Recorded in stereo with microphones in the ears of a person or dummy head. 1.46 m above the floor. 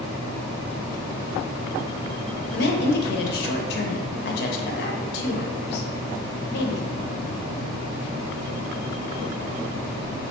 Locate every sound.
2.5 s a woman speaking: 60° left (ahead or behind), 0.9 m